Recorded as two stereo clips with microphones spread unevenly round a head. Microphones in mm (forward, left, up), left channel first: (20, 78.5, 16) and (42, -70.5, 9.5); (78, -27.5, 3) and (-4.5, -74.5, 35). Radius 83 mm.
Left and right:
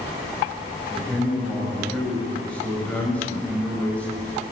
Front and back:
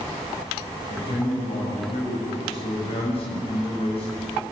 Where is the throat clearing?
No throat clearing in this recording.